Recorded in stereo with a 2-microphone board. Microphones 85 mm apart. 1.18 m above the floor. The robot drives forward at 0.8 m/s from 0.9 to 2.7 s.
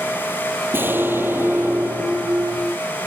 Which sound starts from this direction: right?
An explosion, at 0.7 s.